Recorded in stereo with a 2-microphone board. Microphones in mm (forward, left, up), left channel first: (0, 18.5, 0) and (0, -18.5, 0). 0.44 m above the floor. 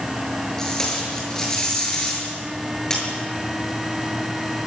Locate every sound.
0.6 s tape being pulled: 15° left (ahead or behind), 8 m